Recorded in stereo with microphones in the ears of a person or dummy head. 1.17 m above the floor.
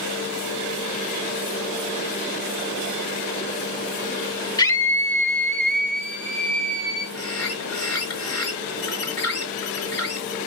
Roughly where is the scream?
Centre.